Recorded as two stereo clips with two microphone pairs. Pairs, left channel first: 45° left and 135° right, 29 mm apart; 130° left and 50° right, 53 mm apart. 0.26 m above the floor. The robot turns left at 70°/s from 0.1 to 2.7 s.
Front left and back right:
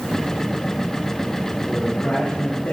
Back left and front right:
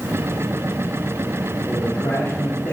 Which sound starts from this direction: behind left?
A man speaking, at 1.7 s.